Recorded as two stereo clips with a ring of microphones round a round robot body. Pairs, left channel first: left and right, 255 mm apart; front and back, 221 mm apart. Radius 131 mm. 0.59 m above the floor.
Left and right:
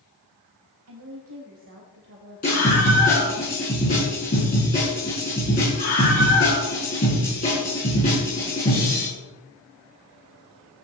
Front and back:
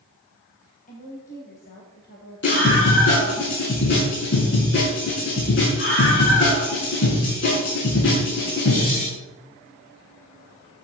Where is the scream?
30° left, 7.5 m.